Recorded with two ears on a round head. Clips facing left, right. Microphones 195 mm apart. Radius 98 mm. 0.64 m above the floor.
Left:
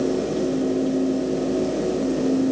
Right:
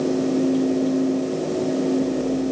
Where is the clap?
No clap in this recording.